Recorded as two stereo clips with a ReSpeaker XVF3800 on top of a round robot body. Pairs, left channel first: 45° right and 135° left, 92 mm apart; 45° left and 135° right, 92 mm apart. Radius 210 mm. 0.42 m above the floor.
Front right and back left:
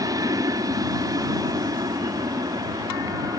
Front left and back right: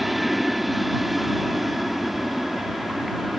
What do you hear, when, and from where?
0.0 s an aircraft: 135° left